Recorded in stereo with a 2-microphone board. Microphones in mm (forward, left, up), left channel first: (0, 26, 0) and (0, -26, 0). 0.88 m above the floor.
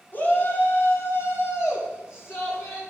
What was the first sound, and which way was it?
A shout, 40° left (ahead or behind).